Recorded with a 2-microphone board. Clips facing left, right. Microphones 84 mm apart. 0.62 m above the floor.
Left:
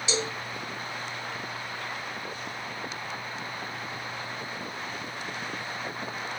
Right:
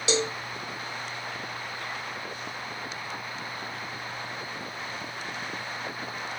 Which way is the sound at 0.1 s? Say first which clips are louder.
Right 5 dB; 85° right.